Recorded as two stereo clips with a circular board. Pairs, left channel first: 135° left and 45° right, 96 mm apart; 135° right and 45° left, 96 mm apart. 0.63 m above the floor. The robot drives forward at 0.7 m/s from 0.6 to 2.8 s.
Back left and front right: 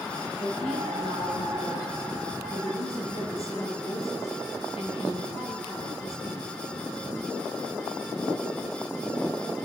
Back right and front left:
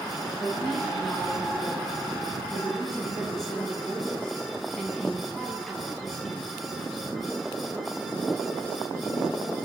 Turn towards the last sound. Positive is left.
turn(degrees=140)